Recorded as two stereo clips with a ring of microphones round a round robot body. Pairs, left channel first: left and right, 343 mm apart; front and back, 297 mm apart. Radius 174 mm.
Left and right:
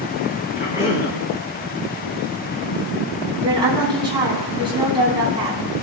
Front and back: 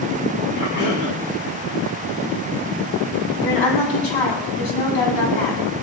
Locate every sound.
0.6 s a cough: 20° left, 5 m
3.4 s a woman speaking: 15° right, 4.5 m